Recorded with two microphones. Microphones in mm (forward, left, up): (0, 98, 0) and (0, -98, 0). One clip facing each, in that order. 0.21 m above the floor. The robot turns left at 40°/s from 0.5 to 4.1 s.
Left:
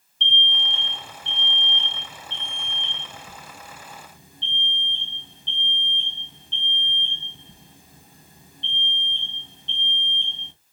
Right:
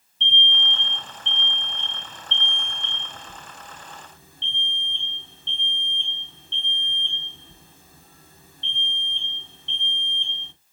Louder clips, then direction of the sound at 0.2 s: Right 1 dB; 165° left.